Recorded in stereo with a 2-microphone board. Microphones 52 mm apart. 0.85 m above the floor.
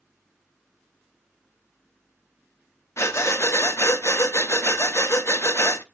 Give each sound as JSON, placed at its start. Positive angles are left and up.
{"t": 3.0, "sound": "breathing", "side_deg": 60, "distance_m": 0.8}